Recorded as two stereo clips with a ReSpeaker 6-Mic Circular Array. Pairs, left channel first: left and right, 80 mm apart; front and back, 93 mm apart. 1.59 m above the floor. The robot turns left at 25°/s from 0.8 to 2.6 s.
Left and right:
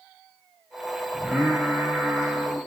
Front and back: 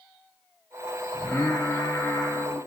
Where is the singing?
15° right, 1.5 m; by 2.6 s 50° right, 1.5 m.